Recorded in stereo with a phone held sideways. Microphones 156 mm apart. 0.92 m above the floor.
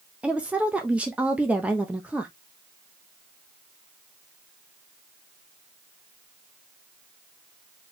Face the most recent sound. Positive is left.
turn(degrees=-10)  # may be behind; listen again after turning